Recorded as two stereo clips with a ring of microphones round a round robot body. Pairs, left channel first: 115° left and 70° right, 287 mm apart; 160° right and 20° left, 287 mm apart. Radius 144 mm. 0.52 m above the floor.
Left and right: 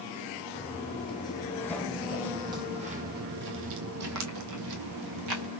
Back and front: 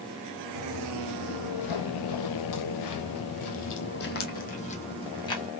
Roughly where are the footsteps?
Behind.